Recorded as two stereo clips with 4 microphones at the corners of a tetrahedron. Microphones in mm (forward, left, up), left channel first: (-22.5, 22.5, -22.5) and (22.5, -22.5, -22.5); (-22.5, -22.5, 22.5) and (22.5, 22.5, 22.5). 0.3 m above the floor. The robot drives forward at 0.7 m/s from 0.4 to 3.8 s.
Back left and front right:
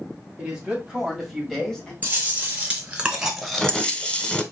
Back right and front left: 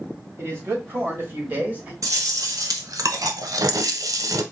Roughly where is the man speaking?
Ahead left.